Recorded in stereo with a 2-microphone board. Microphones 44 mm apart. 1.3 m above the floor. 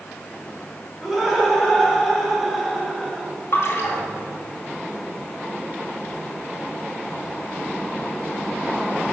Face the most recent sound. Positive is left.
turn(degrees=55)  # may be behind; listen again after turning